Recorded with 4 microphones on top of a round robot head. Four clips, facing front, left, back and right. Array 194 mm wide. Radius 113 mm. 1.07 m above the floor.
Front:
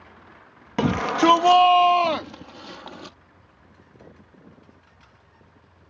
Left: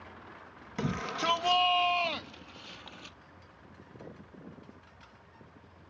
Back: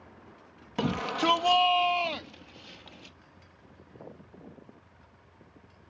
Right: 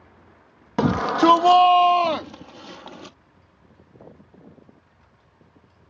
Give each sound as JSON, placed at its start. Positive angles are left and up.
{"t": 0.8, "sound": "a shout", "azimuth_deg": -65}